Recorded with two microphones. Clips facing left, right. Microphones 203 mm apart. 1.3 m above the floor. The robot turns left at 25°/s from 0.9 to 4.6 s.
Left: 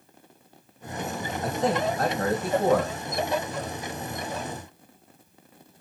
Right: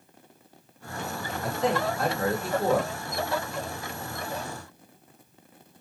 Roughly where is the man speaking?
Behind left.